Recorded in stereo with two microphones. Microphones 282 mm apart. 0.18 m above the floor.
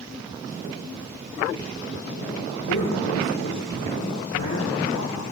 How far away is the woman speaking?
About 8 m.